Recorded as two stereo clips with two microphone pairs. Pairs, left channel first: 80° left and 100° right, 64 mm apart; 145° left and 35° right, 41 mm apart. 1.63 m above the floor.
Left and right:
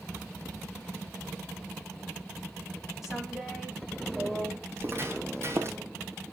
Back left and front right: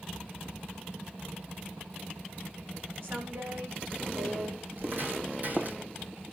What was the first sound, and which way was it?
A woman speaking, 10° right.